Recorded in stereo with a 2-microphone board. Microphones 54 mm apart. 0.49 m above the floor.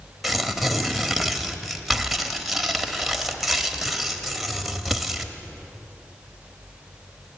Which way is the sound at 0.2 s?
Centre (ahead or behind).